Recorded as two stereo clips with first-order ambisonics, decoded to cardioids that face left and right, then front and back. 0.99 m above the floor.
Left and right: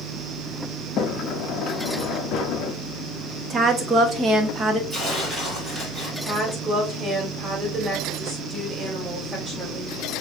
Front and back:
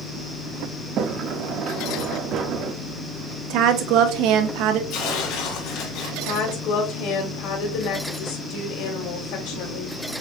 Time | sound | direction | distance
1.0 | a sliding door | 135° left | 0.7 m
3.5 | a woman speaking | 155° right | 1.1 m
4.9 | tearing paper | 20° right | 3 m
6.2 | a woman speaking | 5° right | 3 m